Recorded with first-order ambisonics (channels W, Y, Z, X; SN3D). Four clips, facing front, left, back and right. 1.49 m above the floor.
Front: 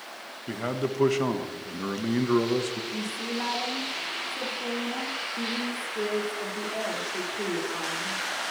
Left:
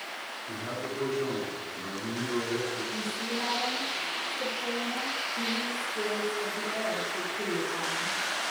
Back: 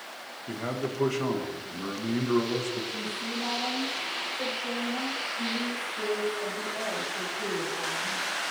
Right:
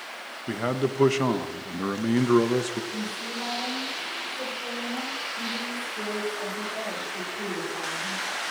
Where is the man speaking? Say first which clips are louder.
Right 10 dB, front 3 dB; 75° right, 1.2 m.